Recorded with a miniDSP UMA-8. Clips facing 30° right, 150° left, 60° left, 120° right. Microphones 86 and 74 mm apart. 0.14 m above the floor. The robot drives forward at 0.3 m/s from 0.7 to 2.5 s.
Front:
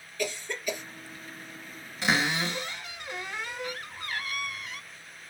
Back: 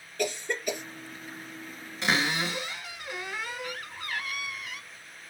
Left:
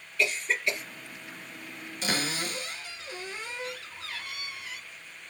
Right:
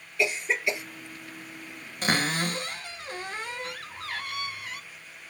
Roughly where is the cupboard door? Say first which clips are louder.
Front 1 dB, right 5 dB; behind right.